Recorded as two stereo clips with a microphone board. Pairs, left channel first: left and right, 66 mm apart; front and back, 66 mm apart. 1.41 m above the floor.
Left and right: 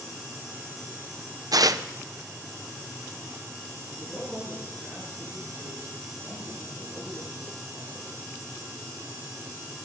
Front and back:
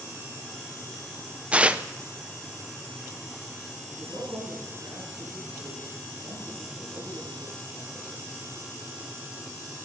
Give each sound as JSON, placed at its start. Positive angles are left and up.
{"t": 1.5, "sound": "tearing paper", "azimuth_deg": -110, "distance_m": 0.6}
{"t": 4.0, "sound": "a man speaking", "azimuth_deg": -170, "distance_m": 9.0}